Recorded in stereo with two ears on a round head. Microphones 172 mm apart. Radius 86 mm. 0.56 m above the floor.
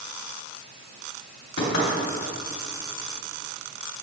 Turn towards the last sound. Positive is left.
turn(degrees=65)  # may be behind; listen again after turning